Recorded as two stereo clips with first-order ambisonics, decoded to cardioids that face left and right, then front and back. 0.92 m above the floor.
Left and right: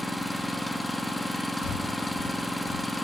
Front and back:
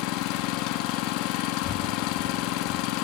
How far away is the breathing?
About 2.0 m.